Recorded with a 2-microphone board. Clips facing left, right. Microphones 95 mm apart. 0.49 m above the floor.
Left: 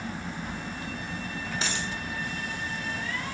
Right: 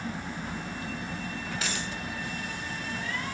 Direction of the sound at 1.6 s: 25° left (ahead or behind).